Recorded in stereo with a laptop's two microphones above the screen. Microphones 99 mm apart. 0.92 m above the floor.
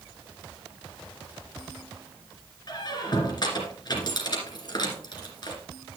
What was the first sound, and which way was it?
A squeak, 50° left (ahead or behind).